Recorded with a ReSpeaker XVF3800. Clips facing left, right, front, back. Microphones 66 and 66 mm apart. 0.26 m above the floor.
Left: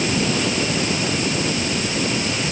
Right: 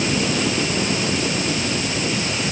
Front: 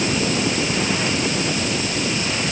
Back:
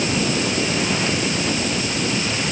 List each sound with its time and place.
Only background noise.